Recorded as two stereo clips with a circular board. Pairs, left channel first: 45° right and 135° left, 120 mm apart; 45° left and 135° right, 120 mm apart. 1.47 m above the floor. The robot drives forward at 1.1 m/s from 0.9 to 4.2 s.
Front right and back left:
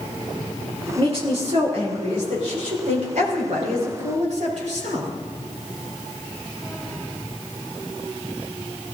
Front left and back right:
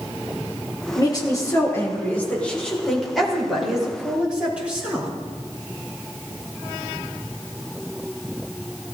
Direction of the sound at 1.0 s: 100° left.